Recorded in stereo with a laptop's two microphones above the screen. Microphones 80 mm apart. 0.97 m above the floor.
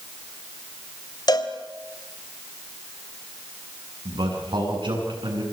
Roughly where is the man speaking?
Right.